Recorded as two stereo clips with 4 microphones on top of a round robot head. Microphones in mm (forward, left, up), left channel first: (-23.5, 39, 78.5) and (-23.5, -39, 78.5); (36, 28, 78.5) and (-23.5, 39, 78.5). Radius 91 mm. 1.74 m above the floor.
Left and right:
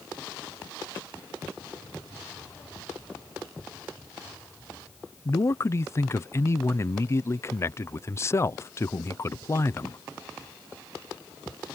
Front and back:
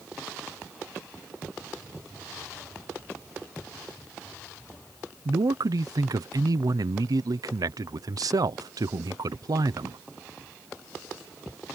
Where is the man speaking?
145° left.